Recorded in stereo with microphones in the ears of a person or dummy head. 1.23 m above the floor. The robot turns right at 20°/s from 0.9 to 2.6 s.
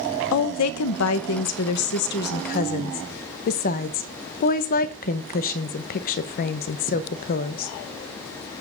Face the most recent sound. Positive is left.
turn(degrees=135)